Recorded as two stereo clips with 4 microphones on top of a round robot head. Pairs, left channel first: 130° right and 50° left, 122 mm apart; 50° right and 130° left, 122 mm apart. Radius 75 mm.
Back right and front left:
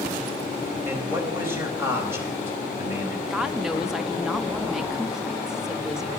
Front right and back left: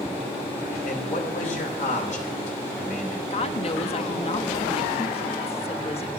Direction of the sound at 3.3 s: 35° right.